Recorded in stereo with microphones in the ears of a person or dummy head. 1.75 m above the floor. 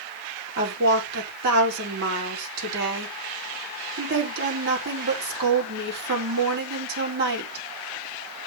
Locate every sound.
0.6 s a woman speaking: 70° right (ahead or behind), 3.5 m